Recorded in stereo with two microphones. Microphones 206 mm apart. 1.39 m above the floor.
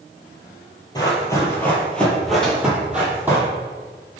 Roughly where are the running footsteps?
Centre.